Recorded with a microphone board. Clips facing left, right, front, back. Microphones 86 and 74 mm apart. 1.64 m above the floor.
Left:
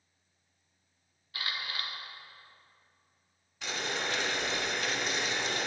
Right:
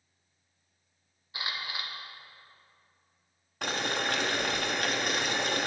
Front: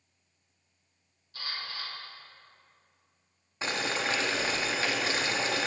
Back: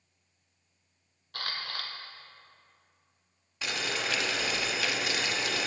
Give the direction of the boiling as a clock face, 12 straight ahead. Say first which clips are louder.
Right 4 dB, front 3 dB; 2 o'clock.